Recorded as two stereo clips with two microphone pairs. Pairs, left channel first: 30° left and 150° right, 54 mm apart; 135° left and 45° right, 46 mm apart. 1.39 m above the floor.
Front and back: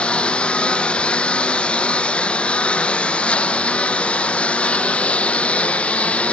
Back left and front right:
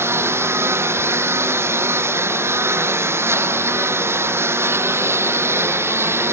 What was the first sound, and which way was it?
A lawn mower, 40° right.